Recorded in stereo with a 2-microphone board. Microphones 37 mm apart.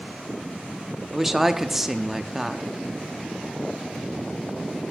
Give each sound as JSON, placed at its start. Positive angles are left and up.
{"t": 1.1, "sound": "a woman speaking", "side_deg": -10, "distance_m": 0.6}